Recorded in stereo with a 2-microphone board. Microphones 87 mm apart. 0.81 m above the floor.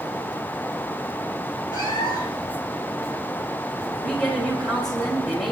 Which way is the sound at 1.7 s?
45° left (ahead or behind).